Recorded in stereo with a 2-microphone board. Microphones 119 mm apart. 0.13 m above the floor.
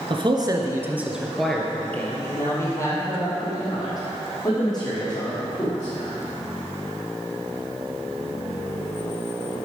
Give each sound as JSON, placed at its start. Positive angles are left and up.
{"t": 0.1, "sound": "a man speaking", "side_deg": -45, "distance_m": 1.7}